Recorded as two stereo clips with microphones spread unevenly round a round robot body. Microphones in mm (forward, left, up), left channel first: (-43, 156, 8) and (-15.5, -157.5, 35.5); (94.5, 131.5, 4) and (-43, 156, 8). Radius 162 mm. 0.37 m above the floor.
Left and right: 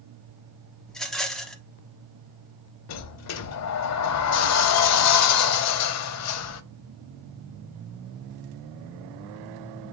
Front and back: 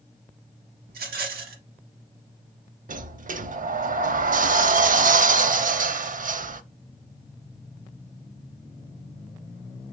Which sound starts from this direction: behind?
A rattle, at 0.9 s.